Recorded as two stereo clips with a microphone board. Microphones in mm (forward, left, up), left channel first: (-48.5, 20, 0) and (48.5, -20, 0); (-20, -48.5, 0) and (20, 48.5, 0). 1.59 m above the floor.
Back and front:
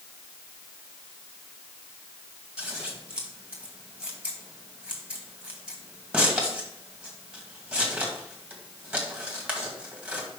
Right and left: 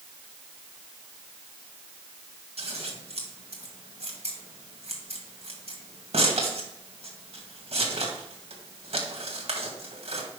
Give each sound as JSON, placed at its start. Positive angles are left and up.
{"t": 2.6, "sound": "scissors", "azimuth_deg": 60, "distance_m": 2.0}